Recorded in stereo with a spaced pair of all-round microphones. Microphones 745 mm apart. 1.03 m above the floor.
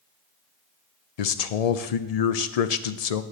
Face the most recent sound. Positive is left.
turn(degrees=60)  # may be behind; listen again after turning